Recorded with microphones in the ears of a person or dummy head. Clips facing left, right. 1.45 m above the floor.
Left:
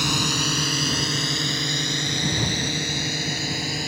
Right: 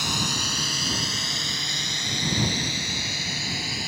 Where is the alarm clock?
No alarm clock in this recording.